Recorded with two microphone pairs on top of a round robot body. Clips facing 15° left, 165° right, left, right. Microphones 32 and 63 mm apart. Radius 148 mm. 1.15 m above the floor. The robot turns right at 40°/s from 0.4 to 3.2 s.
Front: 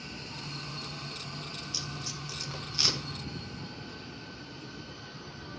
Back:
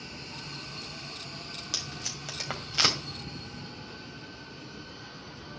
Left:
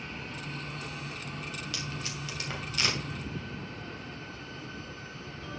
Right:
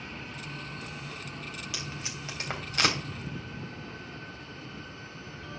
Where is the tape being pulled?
Straight behind, 2.5 m; by 3.0 s 130° right, 2.5 m.